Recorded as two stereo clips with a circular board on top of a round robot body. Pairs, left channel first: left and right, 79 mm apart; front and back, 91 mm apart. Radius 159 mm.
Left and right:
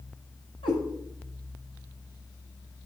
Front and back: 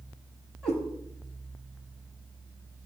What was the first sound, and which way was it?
A cat meowing, 95° left.